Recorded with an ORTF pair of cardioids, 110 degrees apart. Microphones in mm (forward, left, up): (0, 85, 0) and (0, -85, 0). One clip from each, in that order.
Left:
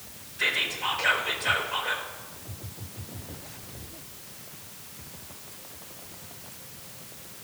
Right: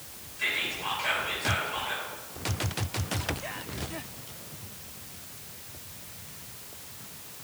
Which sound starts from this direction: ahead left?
Whispering, at 0.4 s.